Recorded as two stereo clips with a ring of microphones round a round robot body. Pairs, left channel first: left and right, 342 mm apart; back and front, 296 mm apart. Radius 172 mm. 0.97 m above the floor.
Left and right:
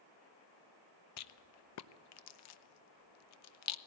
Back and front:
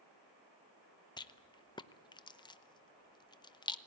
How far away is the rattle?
About 0.8 m.